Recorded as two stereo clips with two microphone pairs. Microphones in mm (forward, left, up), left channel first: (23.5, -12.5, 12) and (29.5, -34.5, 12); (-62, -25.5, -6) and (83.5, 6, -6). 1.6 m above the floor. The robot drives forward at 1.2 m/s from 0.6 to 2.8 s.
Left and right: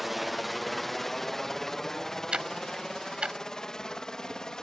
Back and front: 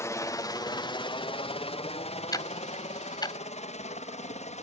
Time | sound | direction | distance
0.0 | a helicopter | 150° right | ?
2.3 | ticking | 105° right | ?